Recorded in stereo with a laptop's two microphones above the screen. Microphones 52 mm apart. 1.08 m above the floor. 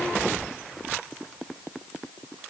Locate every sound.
Only background noise.